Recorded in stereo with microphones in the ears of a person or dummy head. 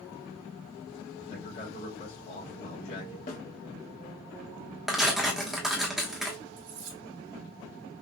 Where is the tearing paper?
Centre (ahead or behind), 1.0 m.